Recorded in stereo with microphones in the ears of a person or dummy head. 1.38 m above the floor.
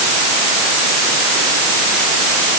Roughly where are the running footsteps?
I don't hear running footsteps.